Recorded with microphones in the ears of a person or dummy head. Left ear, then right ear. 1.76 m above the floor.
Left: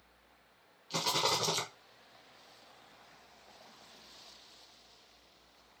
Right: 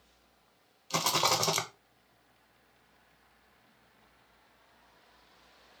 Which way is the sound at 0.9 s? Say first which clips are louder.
Right 3 dB; 30° right (ahead or behind).